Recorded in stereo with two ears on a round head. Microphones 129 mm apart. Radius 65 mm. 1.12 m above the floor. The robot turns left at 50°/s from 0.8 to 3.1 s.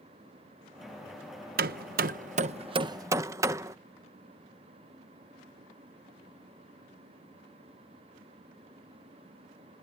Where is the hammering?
70° right (ahead or behind); by 3.8 s 20° right (ahead or behind).